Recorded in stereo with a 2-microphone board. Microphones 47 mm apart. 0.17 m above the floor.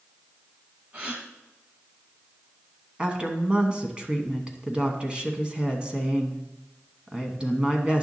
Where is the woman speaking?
20° right (ahead or behind), 1.1 m.